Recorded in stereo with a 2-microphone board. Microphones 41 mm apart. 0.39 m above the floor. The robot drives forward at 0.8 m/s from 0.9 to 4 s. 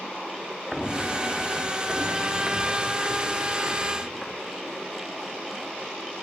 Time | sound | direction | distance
0.7 | footsteps | centre (ahead or behind) | 1.1 m